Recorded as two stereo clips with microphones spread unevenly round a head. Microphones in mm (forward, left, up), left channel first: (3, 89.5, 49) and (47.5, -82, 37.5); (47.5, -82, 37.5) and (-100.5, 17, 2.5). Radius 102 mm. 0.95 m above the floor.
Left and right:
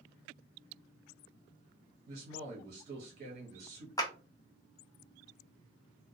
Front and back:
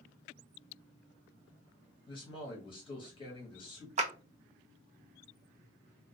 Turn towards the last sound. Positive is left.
turn(degrees=175)